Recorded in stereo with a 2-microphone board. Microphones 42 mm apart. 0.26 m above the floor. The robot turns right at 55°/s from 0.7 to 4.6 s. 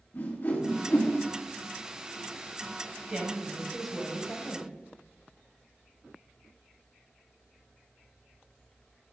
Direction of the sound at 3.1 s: 35° right.